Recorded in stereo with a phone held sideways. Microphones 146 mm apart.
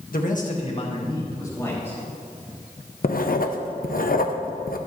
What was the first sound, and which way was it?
A man speaking, 75° left (ahead or behind).